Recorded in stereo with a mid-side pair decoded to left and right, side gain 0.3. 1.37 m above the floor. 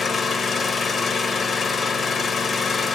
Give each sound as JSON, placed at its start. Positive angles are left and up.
{"t": 0.0, "sound": "an engine running", "azimuth_deg": 65, "distance_m": 1.1}